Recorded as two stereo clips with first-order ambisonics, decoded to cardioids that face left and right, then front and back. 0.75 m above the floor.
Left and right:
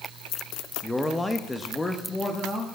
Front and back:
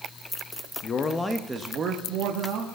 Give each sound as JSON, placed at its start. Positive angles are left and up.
{"t": 0.8, "sound": "a man speaking", "azimuth_deg": 5, "distance_m": 0.6}